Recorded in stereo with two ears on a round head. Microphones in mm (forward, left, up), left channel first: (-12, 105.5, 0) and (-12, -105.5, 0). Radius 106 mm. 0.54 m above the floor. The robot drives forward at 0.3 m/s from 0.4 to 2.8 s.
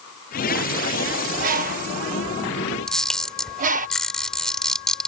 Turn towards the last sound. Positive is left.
turn(degrees=5)  # may be behind; listen again after turning